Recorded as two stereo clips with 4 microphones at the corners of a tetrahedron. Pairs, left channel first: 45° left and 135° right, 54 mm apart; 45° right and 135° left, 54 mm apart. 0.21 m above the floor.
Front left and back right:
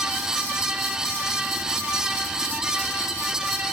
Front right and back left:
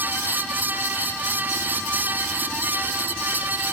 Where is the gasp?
No gasp in this recording.